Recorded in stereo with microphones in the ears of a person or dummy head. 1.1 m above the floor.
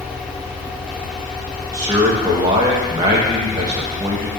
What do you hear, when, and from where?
0.0 s a fan: centre (ahead or behind), 1.0 m
1.7 s a man speaking: 20° right (ahead or behind), 1.1 m